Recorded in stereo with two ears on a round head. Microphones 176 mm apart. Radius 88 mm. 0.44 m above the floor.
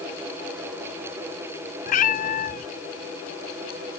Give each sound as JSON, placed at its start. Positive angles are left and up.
{"t": 1.9, "sound": "a cat meowing", "side_deg": 45}